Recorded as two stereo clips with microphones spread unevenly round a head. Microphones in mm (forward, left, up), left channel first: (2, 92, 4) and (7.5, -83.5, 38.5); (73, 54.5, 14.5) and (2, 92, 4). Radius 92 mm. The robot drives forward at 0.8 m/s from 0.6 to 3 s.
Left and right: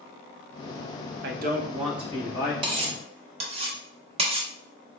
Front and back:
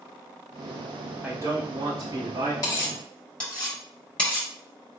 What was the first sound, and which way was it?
A man speaking, 120° right.